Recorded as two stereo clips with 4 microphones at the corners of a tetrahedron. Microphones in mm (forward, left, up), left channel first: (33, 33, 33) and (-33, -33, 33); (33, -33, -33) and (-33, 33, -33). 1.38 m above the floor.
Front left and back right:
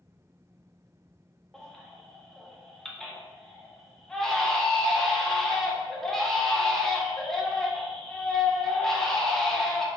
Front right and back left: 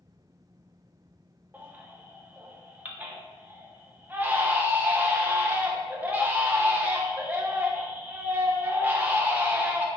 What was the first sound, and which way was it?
A baby crying, 115° left.